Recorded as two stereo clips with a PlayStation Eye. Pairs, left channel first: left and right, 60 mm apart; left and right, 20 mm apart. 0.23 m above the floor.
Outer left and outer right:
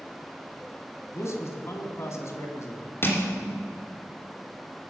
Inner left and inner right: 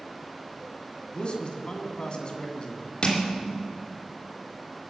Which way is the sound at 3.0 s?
40° left (ahead or behind).